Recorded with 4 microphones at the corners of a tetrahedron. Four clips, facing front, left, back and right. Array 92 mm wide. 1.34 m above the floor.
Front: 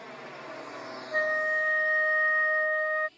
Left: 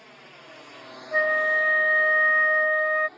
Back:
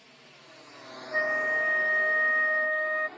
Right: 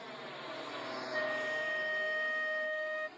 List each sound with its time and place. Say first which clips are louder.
0.0 s a drone: right 3 dB, front 13 dB; 15° right; by 3.2 s 170° left
1.1 s a flute: left 14 dB, even; 75° left